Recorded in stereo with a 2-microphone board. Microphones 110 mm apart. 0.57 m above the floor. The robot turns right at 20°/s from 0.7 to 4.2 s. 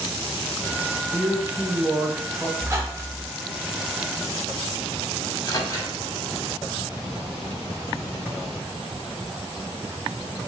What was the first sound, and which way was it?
A man speaking, 15° right (ahead or behind).